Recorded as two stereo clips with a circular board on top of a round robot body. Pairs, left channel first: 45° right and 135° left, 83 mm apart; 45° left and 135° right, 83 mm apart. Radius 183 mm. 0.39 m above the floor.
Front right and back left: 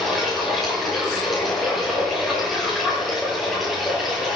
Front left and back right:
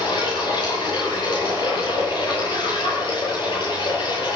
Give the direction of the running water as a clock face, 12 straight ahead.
11 o'clock.